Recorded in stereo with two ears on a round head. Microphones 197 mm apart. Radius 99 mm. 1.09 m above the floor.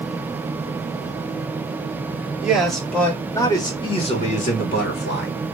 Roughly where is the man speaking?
Centre.